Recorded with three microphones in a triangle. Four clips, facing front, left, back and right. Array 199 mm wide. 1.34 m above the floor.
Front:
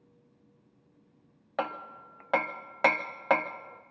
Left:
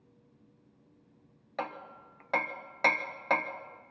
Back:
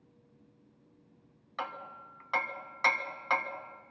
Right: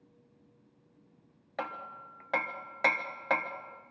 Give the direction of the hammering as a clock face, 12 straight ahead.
12 o'clock.